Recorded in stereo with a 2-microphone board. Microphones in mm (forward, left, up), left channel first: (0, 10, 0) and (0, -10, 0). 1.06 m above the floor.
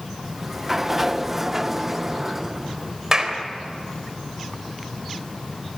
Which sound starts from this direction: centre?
A sliding door, at 0.2 s.